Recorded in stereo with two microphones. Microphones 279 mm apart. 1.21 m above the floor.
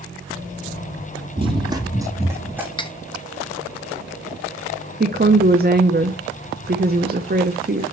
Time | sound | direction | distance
1.4 | running footsteps | 20° right (ahead or behind) | 1.5 m
2.8 | cutlery clinking | 15° left (ahead or behind) | 0.8 m
5.0 | a woman speaking | 35° right (ahead or behind) | 0.6 m